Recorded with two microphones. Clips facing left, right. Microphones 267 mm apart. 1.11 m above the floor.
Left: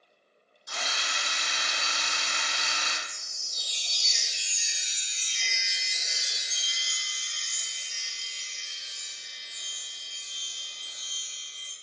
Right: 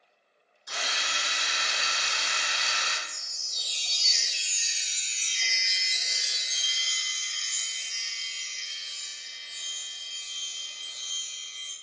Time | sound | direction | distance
0.7 | a drill | 75° right (ahead or behind) | 0.8 m
3.1 | a chime | 15° left (ahead or behind) | 0.8 m